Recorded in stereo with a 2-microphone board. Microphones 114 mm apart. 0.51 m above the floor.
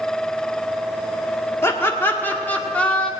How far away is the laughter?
About 1.3 m.